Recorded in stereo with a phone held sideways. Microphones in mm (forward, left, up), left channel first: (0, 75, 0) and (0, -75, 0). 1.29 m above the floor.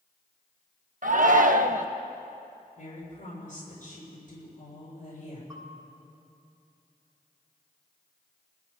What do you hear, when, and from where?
1.0 s a shout: 60° right (ahead or behind), 0.9 m
2.8 s a woman speaking: 55° left (ahead or behind), 6 m
5.5 s a bell: 25° right (ahead or behind), 4.5 m